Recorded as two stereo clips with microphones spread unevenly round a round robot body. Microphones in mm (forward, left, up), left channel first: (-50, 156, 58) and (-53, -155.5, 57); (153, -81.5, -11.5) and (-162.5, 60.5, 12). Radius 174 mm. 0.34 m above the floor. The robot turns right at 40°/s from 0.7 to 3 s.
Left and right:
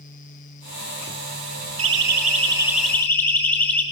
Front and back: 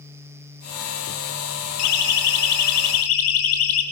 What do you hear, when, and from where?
1.8 s a siren: 40° right, 8.5 m; by 3.8 s 5° left, 8.5 m